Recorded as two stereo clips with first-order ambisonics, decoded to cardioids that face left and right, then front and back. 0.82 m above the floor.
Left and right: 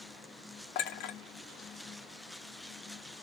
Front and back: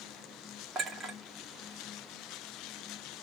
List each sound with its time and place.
0.8 s a clink: 105° left, 1.3 m